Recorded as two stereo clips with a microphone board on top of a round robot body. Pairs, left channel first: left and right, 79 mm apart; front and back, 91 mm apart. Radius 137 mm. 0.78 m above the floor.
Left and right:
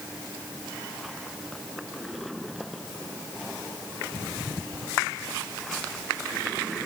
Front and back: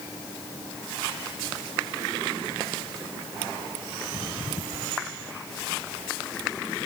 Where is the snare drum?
No snare drum in this recording.